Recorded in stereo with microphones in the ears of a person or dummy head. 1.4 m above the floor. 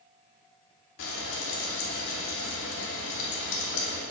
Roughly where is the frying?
Left.